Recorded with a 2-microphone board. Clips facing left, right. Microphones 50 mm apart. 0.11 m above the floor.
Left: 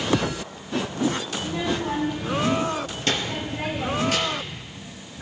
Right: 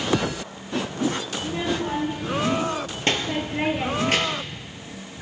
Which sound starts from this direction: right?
A child speaking, at 1.4 s.